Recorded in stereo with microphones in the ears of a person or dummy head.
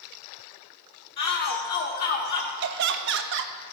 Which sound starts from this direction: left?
A shout, at 1.2 s.